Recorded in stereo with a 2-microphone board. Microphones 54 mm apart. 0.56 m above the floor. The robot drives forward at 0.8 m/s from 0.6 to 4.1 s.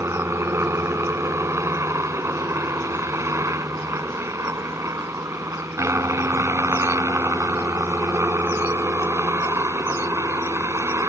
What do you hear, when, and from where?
0.0 s a helicopter: 55° right (ahead or behind); by 11.1 s 60° right (ahead or behind)